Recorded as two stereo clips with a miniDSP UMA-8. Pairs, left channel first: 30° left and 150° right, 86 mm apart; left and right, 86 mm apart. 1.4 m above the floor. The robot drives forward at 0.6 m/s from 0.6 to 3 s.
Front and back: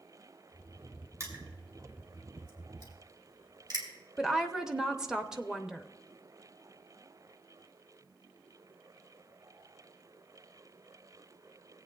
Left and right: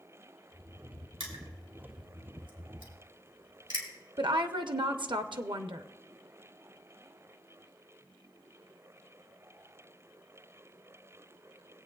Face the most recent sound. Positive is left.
turn(degrees=-70)